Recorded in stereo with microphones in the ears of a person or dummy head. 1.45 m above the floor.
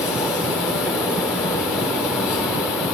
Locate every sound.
0.0 s an insect: 15° left (ahead or behind), 5 m